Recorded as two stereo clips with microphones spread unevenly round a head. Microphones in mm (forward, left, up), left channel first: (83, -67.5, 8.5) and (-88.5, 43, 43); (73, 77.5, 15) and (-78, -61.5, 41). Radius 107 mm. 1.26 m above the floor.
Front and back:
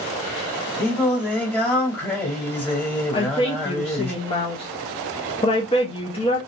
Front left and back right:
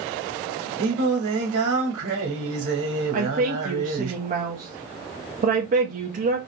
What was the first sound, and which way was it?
Singing, 120° right.